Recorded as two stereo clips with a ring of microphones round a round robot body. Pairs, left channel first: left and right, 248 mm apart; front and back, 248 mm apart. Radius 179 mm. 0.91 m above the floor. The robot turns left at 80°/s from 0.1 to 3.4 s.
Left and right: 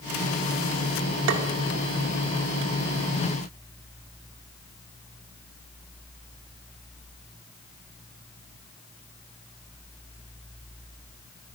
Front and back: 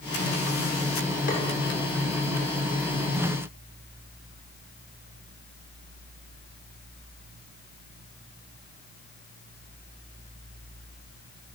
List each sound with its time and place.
1.3 s tapping: 70° right, 0.8 m; by 1.4 s 80° right, 0.8 m